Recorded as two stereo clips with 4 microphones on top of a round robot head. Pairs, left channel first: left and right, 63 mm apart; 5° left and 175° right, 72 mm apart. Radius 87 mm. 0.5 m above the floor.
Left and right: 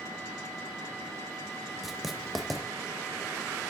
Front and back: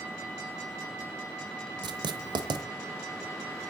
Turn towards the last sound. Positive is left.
turn(degrees=180)